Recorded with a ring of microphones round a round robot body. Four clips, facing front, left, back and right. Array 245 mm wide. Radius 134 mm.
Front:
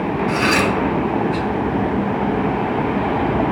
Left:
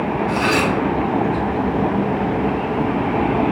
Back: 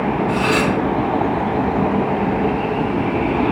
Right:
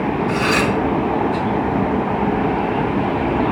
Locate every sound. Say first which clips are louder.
0.3 s cutlery clinking: even, front 2 dB; straight ahead, 2.5 m